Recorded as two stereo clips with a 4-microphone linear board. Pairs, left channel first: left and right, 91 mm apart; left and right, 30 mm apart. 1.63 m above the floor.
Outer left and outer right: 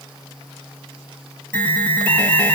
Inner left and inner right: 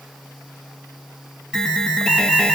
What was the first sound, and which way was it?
An alarm, 20° left (ahead or behind).